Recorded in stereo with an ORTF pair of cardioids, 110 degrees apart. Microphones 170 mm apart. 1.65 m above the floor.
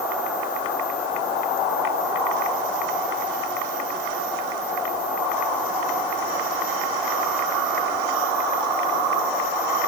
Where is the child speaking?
No child speaking in this recording.